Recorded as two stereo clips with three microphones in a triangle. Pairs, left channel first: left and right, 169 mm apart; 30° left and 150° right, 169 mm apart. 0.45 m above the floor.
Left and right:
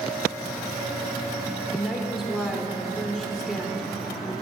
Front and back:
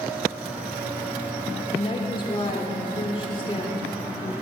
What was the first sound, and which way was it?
A woman speaking, straight ahead.